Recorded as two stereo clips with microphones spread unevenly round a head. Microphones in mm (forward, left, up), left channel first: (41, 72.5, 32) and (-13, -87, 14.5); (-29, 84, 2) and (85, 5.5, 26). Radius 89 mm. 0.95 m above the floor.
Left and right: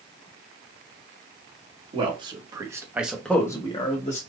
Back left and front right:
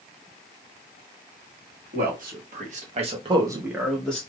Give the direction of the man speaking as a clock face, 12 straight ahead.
2 o'clock.